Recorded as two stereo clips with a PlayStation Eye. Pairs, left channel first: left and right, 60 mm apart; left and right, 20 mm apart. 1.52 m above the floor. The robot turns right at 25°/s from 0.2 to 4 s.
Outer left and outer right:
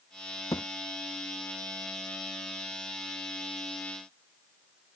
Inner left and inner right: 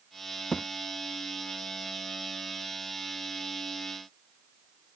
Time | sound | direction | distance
0.5 | a thud | 70° left (ahead or behind) | ?